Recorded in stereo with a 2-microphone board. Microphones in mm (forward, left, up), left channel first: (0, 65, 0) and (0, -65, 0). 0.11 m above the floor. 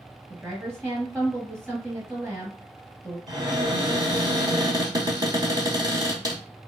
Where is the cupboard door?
30° right (ahead or behind), 1.1 m.